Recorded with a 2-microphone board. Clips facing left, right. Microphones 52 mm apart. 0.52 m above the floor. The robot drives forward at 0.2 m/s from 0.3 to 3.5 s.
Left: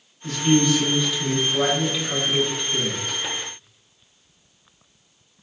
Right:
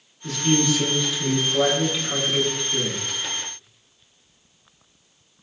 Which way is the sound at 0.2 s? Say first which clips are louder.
Left 3 dB; centre (ahead or behind).